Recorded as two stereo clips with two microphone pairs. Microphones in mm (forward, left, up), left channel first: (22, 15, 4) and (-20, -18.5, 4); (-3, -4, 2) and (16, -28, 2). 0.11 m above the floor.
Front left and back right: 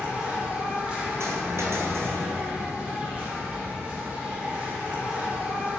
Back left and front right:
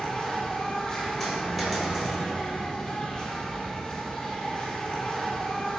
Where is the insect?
175° left, 1.3 m.